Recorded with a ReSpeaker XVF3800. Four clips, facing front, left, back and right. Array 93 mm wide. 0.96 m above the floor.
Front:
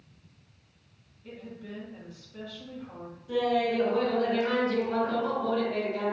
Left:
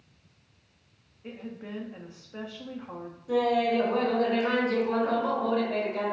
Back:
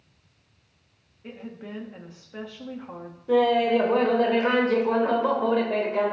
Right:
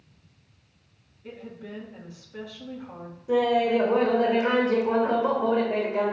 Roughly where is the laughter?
Behind.